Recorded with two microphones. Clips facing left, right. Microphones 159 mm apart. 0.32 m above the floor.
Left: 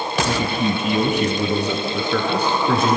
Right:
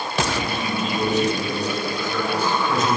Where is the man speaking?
40° left (ahead or behind), 1.3 m; by 3.0 s 65° left (ahead or behind), 4 m.